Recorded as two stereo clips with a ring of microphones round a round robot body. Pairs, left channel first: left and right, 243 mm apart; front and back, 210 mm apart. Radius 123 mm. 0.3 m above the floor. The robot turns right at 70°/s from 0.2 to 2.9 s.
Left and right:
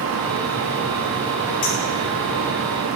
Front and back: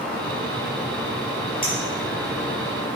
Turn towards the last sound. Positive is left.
turn(degrees=135)